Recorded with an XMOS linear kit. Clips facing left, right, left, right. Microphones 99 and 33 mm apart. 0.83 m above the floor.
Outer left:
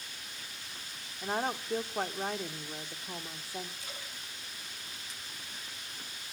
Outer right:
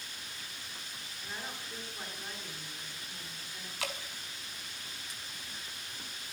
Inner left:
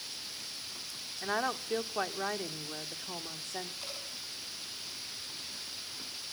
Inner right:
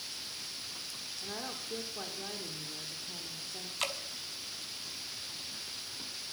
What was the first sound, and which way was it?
A woman speaking, 75° left (ahead or behind).